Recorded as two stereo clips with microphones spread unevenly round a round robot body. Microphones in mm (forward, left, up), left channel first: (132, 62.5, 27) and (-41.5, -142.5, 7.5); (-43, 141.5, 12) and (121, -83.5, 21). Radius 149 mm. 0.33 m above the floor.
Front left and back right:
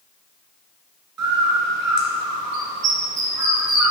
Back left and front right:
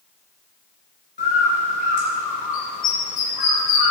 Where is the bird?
170° right, 3 m.